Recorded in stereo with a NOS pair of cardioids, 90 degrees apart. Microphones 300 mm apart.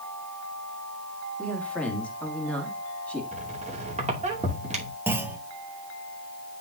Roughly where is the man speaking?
Ahead.